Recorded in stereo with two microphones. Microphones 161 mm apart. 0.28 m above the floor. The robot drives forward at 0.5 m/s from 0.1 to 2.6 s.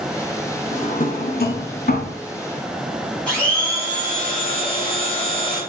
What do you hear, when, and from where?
0.7 s a drawer: 45° left (ahead or behind), 0.8 m; by 2.2 s 70° left (ahead or behind), 0.6 m
3.3 s a blender: 5° left (ahead or behind), 2 m